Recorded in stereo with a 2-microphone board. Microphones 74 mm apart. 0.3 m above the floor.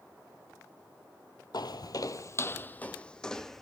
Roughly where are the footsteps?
Left.